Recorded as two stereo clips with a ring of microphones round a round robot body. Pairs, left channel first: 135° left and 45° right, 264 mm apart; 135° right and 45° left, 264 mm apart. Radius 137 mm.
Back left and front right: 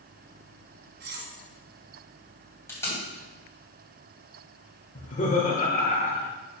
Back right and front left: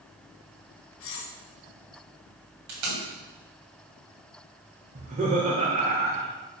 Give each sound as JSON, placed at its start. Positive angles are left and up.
{"t": 1.0, "sound": "cutlery clinking", "azimuth_deg": -95, "distance_m": 1.4}
{"t": 2.7, "sound": "tape being pulled", "azimuth_deg": 55, "distance_m": 3.0}
{"t": 5.0, "sound": "laughter", "azimuth_deg": 90, "distance_m": 1.0}